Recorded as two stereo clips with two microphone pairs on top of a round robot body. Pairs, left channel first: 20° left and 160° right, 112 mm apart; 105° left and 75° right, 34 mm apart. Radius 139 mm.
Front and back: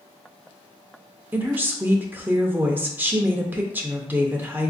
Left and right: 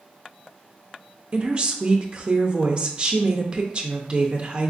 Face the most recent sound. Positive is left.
turn(degrees=-135)